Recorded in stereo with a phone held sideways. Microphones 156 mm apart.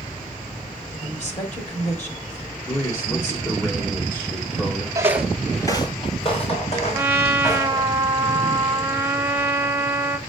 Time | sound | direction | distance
1.0 | a woman speaking | 50° left (ahead or behind) | 2 m
2.7 | a man speaking | 20° left (ahead or behind) | 1.6 m
5.0 | footsteps | 25° right (ahead or behind) | 0.9 m
6.9 | a trumpet | 15° right (ahead or behind) | 0.7 m